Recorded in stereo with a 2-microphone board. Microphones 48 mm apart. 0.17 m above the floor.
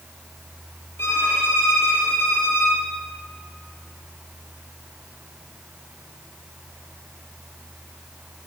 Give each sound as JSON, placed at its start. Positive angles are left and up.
{"t": 1.0, "sound": "a violin", "side_deg": 55, "distance_m": 3.0}